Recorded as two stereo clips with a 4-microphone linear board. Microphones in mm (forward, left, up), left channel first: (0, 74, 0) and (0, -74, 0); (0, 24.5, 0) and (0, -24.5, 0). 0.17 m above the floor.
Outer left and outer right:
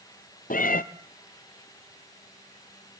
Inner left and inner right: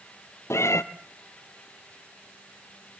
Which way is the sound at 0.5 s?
80° left.